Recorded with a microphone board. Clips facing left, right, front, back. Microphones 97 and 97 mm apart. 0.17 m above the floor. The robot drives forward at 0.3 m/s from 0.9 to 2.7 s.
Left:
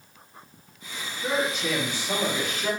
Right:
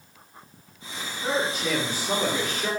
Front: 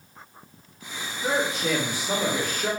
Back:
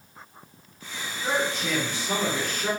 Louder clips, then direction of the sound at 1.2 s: Even, front 2 dB; 70° right.